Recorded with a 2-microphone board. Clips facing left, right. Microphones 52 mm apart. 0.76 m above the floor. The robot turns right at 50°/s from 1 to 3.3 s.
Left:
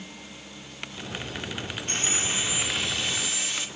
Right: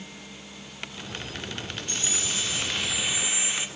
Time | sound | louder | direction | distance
1.9 | sawing | left 3 dB | 130° left | 2.0 m